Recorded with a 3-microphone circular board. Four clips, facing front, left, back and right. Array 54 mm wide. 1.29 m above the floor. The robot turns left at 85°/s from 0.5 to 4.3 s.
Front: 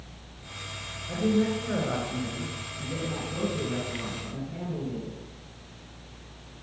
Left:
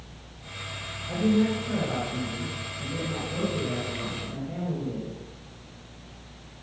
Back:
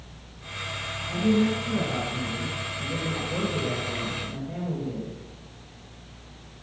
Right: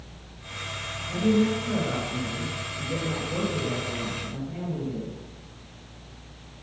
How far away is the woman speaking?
About 6.5 m.